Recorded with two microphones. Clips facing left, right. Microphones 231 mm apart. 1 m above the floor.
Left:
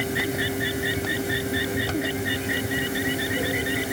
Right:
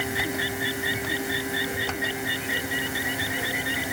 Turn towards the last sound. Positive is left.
No sound to turn to.